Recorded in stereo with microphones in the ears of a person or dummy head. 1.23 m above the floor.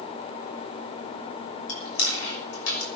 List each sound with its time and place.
1.7 s chewing: 80° left, 6 m